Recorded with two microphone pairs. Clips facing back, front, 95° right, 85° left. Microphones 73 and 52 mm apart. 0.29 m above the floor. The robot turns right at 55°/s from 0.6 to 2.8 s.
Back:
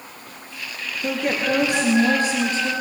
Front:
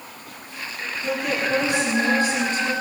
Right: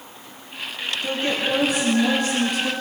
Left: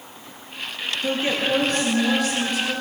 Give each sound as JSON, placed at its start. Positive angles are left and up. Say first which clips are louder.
{"t": 1.0, "sound": "a woman speaking", "louder": "back 2 dB, left 1 dB", "azimuth_deg": 150, "distance_m": 4.0}